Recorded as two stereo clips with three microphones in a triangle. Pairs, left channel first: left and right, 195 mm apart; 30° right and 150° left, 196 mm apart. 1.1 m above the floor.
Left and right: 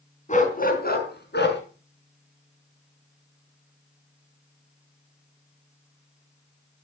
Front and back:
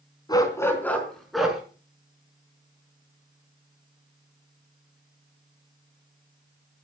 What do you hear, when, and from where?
0.3 s a dog barking: 40° left, 3.5 m; by 1.6 s 65° left, 4.5 m